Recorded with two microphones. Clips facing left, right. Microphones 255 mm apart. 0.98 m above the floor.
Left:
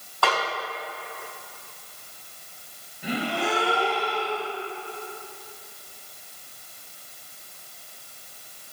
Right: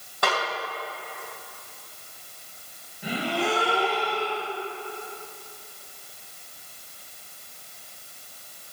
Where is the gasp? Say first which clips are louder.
Even; centre (ahead or behind), 4.5 m.